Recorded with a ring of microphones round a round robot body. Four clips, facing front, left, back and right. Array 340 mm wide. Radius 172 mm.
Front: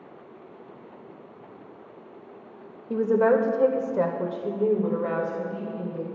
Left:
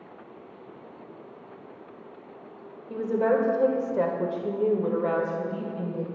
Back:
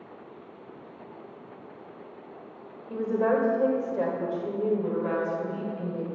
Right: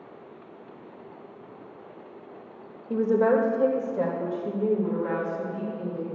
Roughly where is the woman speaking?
Ahead right.